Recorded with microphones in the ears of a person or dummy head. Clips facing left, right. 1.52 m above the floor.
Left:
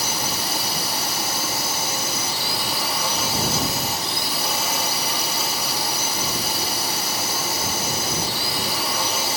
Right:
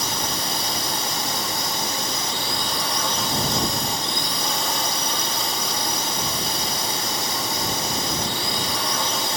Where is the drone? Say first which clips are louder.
Even; 5° right (ahead or behind).